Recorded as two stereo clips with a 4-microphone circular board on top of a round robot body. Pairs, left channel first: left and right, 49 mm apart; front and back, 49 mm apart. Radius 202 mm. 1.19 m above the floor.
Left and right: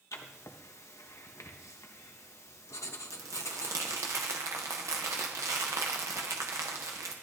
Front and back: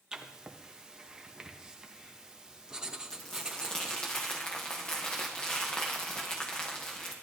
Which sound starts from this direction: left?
Writing, at 0.1 s.